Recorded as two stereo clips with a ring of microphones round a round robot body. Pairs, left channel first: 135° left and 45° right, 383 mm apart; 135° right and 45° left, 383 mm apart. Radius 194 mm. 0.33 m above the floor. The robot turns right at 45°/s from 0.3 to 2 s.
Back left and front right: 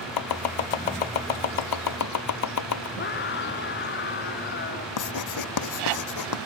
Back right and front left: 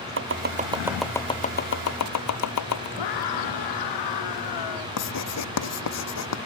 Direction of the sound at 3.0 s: 165° right.